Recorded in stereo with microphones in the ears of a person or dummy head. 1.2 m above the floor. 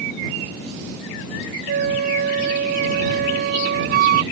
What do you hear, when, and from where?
1.7 s a flute: 55° right (ahead or behind)